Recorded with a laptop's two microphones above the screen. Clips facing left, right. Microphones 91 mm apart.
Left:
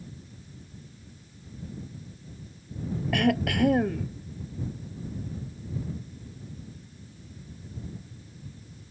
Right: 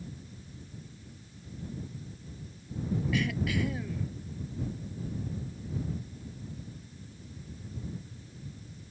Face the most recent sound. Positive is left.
turn(degrees=65)  # may be behind; listen again after turning